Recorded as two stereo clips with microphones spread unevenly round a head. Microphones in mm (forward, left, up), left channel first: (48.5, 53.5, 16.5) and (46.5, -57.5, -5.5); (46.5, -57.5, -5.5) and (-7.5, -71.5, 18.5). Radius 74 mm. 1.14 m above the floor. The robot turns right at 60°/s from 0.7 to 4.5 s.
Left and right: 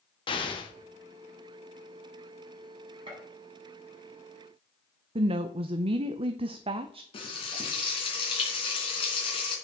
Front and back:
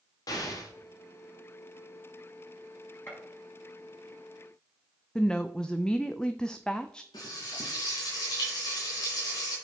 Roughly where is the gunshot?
Ahead right.